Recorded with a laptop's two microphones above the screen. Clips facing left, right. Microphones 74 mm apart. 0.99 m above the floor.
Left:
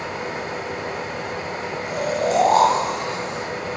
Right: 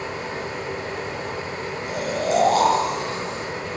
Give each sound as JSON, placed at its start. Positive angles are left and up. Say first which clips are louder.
{"t": 0.0, "sound": "a fan", "louder": "left 1 dB", "side_deg": 65, "distance_m": 1.6}
{"t": 1.9, "sound": "snoring", "louder": "left 2 dB", "side_deg": 55, "distance_m": 4.0}